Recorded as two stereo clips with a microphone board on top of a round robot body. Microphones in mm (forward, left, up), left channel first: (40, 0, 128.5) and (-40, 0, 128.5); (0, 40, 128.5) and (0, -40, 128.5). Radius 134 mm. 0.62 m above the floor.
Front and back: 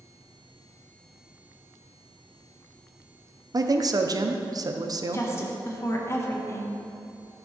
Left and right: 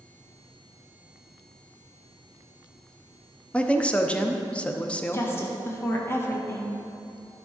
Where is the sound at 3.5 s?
165° left, 0.9 m.